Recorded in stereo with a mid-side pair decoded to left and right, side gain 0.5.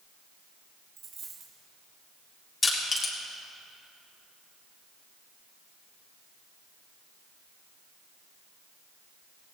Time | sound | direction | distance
1.0 | a dropped coin | 55° right | 3 m
2.6 | crushing | 35° left | 3 m